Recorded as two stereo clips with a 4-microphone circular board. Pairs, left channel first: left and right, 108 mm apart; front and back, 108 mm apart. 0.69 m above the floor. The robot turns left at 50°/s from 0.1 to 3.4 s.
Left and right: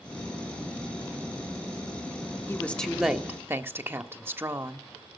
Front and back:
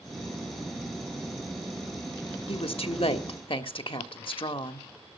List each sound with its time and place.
2.5 s a woman speaking: 25° left, 1.6 m; by 4.9 s 25° right, 1.6 m